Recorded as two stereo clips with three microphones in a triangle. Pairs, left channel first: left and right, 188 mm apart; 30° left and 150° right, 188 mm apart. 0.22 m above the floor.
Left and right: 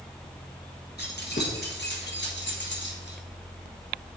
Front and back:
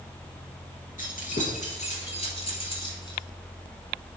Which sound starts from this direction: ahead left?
Keys jangling, at 1.0 s.